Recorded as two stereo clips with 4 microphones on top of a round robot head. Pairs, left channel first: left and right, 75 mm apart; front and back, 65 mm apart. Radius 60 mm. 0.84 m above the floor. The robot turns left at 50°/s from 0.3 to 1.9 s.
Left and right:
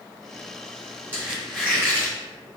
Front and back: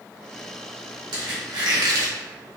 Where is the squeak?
160° right, 1.4 m; by 2.1 s 160° left, 1.4 m.